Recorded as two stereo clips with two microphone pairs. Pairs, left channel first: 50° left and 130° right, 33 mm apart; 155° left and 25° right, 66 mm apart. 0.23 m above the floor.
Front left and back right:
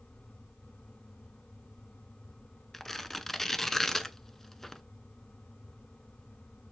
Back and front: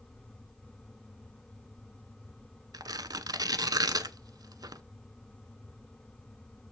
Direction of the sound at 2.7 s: 30° right.